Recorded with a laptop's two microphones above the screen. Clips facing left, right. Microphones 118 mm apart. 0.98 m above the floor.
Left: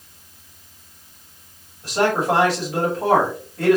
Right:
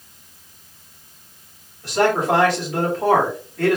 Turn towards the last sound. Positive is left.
turn(degrees=15)  # may be behind; listen again after turning